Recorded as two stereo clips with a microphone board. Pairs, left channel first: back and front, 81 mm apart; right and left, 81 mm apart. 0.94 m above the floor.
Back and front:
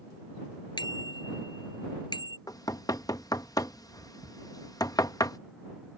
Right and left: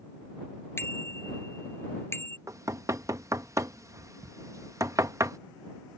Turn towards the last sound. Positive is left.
turn(degrees=140)